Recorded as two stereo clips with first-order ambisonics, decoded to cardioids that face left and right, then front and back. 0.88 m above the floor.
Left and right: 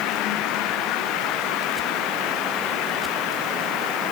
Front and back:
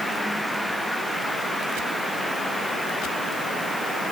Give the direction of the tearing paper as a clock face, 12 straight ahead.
I don't hear tearing paper.